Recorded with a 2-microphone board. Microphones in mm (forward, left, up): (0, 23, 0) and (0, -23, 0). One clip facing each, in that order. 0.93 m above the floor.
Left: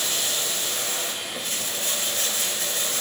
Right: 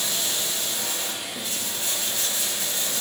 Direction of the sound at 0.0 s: 60° left (ahead or behind).